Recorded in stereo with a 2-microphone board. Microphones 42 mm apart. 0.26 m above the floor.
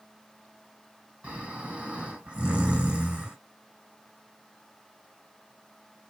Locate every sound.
1.2 s snoring: 30° right (ahead or behind), 2.5 m